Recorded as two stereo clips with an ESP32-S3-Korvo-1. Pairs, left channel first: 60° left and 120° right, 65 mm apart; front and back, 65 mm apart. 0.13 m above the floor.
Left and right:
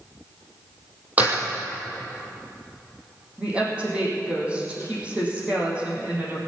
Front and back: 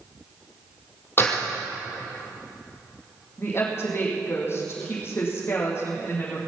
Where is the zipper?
I don't hear a zipper.